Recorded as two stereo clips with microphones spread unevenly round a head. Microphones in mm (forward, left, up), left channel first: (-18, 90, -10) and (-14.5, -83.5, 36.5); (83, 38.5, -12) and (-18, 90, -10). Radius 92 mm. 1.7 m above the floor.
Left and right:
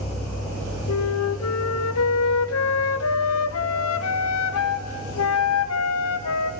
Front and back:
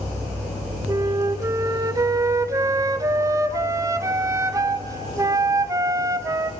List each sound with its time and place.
0.9 s a flute: 90° left, 0.8 m